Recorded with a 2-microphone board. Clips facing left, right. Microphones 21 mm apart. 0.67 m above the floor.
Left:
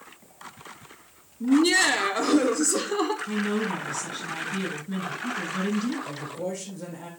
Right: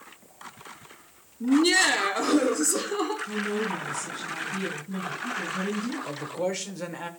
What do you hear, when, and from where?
1.4 s laughter: 10° right (ahead or behind), 1.0 m; by 3.2 s 15° left (ahead or behind), 1.6 m
3.3 s a woman speaking: 50° left (ahead or behind), 6 m
6.0 s a man speaking: 70° right (ahead or behind), 1.8 m